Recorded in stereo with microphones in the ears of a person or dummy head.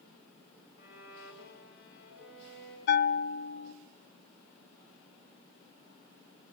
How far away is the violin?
About 8.5 m.